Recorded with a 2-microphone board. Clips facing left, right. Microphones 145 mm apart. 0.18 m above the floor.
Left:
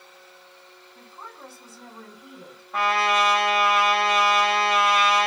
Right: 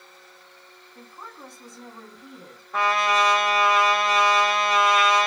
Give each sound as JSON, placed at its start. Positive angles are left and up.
{"t": 0.9, "sound": "a woman speaking", "side_deg": 5, "distance_m": 1.0}
{"t": 2.7, "sound": "a trumpet", "side_deg": 0, "distance_m": 2.0}